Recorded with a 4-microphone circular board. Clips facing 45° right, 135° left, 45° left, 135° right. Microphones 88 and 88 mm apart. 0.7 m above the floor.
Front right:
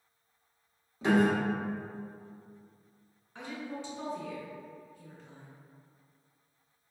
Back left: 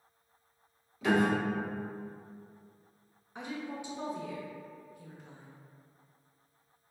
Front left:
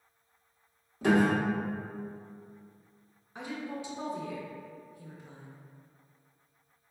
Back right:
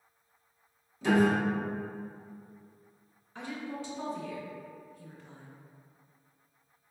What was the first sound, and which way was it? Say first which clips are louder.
A piano: front right 2 dB, even; 15° left.